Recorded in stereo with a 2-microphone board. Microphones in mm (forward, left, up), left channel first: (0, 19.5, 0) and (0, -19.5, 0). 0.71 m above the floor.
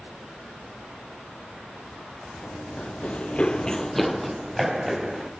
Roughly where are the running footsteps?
Left.